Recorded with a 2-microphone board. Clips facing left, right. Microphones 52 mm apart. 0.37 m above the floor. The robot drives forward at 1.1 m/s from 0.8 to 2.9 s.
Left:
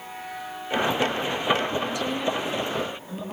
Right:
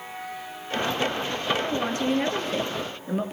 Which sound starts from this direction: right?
A woman speaking, at 1.6 s.